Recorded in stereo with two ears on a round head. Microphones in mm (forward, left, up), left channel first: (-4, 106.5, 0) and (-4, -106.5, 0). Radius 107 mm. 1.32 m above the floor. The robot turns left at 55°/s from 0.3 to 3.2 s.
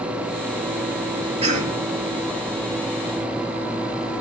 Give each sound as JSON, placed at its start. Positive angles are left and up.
{"t": 1.4, "sound": "a cough", "side_deg": -25, "distance_m": 2.0}